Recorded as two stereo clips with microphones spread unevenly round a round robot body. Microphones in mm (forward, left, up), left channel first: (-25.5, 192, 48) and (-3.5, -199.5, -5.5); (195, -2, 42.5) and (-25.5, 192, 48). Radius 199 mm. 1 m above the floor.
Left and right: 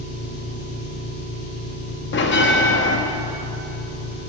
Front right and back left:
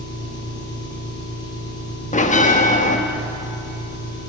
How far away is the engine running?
About 7.5 m.